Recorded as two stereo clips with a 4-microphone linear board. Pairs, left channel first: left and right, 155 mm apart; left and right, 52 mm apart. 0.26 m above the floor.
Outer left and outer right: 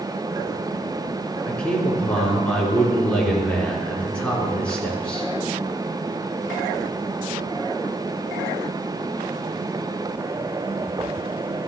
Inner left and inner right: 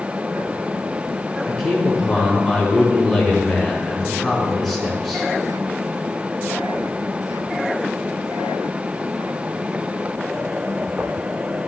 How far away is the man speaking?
About 4 m.